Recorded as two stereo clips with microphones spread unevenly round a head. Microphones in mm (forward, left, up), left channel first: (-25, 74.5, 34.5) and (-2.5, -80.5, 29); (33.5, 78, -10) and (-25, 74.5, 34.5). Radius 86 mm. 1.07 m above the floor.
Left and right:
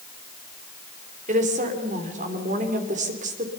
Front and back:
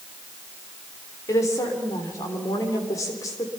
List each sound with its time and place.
1.3 s a woman speaking: 35° right, 3 m